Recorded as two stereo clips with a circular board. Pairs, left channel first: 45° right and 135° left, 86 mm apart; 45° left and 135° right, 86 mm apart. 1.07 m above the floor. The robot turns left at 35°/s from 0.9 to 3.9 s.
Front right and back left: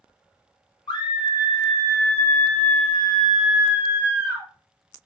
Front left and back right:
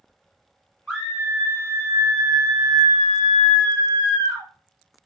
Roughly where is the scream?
Ahead right.